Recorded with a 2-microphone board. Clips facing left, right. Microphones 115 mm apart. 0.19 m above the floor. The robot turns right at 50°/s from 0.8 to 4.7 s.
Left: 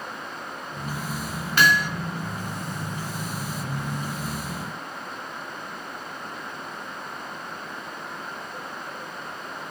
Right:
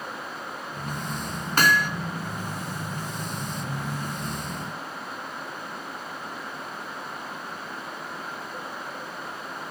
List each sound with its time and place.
1.6 s hammering: 45° right (ahead or behind), 1.9 m; by 1.9 s 50° right (ahead or behind), 1.9 m